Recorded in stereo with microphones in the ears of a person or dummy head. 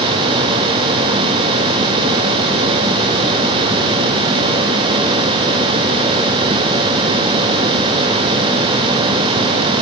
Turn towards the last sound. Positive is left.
No sound to turn to.